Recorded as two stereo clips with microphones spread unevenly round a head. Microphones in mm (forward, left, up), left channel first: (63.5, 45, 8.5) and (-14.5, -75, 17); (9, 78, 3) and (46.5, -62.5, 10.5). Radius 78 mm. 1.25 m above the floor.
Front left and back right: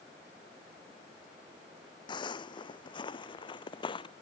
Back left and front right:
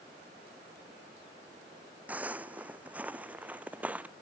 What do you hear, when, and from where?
2.1 s footsteps: straight ahead